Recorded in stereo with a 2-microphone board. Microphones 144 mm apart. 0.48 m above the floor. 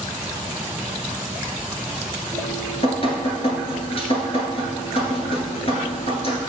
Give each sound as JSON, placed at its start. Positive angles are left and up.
{"t": 2.3, "sound": "dripping", "side_deg": 45, "distance_m": 1.6}